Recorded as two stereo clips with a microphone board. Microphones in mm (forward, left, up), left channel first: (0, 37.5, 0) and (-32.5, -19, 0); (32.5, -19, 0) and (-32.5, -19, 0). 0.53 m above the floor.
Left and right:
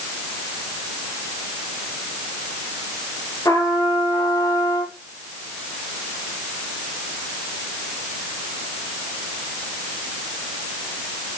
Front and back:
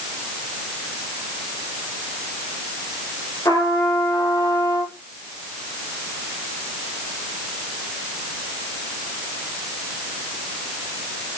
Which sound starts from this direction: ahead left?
A trumpet, at 3.5 s.